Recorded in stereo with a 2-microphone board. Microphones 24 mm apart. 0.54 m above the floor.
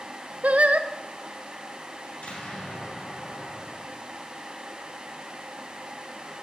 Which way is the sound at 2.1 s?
65° left (ahead or behind).